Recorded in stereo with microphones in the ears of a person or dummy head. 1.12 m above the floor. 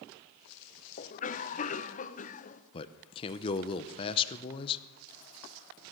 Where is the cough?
40° left (ahead or behind), 0.8 m.